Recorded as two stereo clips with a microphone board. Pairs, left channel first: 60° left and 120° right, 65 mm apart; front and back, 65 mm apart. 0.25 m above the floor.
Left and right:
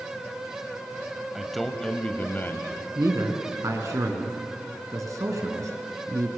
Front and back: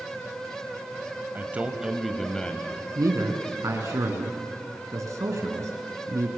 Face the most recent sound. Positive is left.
turn(degrees=-150)